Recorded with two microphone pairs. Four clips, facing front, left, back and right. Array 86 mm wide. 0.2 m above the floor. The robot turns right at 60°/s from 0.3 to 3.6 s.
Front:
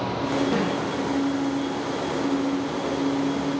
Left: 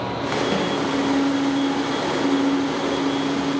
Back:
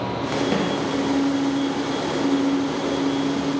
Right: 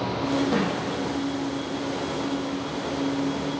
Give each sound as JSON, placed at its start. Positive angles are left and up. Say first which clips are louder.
{"t": 0.5, "sound": "a snare drum", "louder": "left 1 dB, back 1 dB", "azimuth_deg": 175, "distance_m": 3.0}